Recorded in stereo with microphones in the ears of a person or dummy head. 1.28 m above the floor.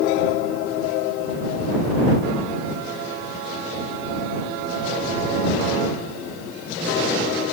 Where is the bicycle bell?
No bicycle bell in this recording.